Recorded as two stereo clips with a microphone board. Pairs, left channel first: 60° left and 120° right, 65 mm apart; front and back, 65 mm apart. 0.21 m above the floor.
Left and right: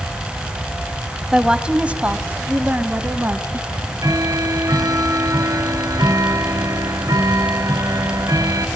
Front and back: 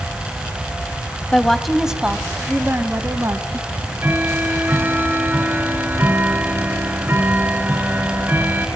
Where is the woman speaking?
55° right, 1.0 m; by 3.6 s 170° right, 1.5 m.